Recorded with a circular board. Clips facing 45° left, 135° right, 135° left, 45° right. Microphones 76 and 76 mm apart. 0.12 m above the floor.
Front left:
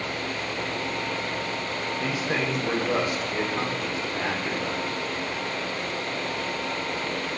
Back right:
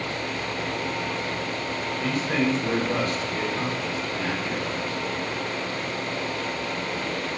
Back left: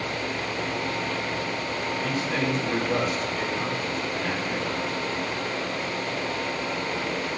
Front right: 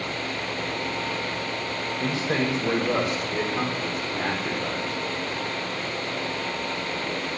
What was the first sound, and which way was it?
A man speaking, 40° right.